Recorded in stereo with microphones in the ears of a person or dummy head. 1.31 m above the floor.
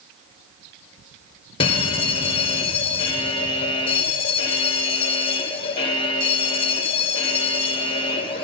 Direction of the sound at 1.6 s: 30° left (ahead or behind).